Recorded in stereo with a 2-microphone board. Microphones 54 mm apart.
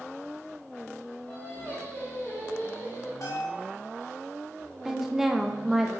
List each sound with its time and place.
1.3 s singing: 45° left (ahead or behind), 2 m
3.2 s a bell: 70° left (ahead or behind), 1.3 m
4.8 s a woman speaking: 5° right (ahead or behind), 0.6 m